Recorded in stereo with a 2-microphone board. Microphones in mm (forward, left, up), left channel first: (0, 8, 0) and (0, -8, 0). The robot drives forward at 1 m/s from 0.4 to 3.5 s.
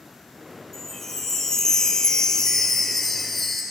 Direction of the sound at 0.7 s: 15° left (ahead or behind).